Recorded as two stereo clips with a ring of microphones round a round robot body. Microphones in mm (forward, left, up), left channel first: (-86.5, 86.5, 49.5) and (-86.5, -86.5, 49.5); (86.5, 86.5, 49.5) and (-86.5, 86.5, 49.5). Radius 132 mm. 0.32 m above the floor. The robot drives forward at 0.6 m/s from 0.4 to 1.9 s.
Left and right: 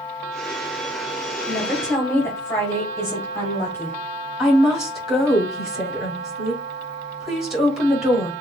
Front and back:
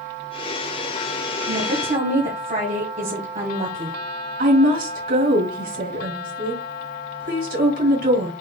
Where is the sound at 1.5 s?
160° left, 1.2 m; by 4.0 s 165° left, 1.3 m.